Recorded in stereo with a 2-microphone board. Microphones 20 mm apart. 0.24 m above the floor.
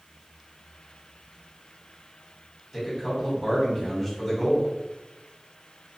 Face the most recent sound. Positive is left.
turn(degrees=-5)  # may be behind; listen again after turning